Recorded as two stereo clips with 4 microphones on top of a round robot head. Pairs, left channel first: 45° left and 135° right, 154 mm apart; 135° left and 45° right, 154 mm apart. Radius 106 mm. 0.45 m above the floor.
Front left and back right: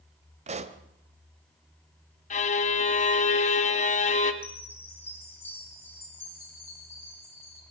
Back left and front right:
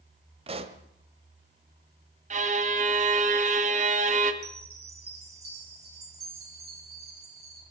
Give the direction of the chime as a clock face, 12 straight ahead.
1 o'clock.